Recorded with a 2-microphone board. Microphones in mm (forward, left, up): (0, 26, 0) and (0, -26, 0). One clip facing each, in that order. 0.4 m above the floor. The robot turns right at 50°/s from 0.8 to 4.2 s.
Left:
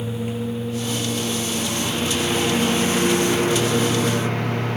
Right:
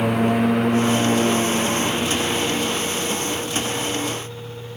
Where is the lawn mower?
75° right (ahead or behind); by 4.8 s 80° left.